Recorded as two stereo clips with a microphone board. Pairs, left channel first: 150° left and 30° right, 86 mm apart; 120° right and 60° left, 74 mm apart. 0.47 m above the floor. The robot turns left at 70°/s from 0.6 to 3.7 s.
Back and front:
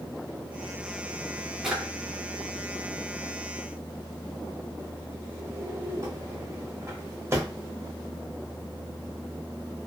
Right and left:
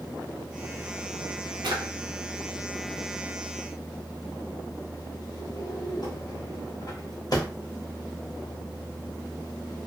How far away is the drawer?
About 0.9 m.